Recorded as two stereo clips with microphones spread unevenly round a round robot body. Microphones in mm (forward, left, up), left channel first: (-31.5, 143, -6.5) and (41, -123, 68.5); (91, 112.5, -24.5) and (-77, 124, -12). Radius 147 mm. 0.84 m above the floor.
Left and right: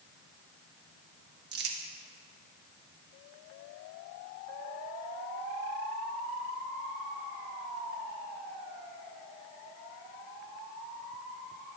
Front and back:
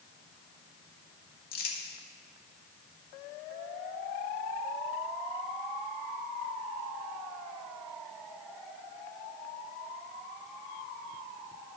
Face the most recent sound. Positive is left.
turn(degrees=-20)